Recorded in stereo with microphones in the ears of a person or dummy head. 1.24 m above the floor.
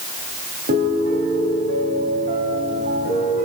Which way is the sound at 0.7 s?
55° right (ahead or behind).